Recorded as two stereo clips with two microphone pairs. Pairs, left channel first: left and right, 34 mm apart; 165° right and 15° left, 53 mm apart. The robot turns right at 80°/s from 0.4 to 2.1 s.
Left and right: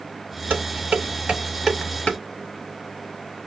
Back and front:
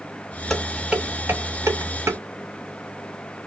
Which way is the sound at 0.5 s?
90° right.